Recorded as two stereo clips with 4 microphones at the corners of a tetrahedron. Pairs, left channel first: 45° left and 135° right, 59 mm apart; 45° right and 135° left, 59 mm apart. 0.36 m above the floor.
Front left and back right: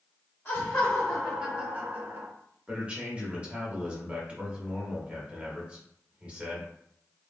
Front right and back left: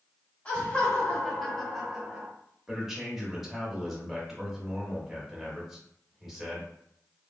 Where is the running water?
No running water in this recording.